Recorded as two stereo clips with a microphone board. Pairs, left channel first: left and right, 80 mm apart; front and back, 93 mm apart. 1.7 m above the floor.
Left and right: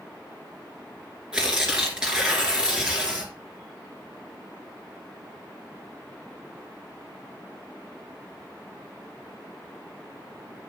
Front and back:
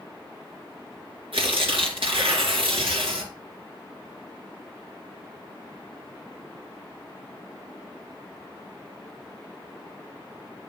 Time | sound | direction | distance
1.3 | tearing paper | 170° right | 2.5 m